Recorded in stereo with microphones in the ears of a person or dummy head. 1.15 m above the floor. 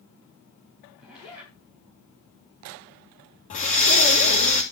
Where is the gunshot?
I don't hear a gunshot.